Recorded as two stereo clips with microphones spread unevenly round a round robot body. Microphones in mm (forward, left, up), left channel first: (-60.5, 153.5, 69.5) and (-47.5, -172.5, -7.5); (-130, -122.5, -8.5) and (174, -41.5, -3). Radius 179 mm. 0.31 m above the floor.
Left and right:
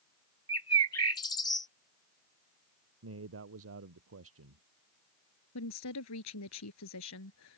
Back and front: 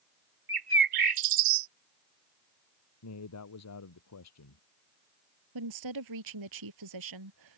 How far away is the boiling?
I don't hear boiling.